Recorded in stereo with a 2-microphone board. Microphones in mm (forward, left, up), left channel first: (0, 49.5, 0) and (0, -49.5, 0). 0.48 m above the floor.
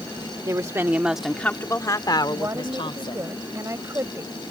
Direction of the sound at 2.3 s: 30° right (ahead or behind).